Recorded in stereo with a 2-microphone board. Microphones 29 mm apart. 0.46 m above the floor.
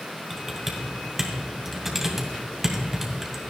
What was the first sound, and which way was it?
Typing on a keyboard, 10° right (ahead or behind).